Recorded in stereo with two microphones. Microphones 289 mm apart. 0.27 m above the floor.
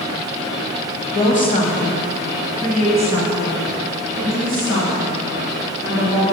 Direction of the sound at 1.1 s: 20° left (ahead or behind).